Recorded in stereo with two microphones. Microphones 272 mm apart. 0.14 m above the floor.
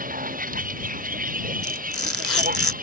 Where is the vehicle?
30° right (ahead or behind).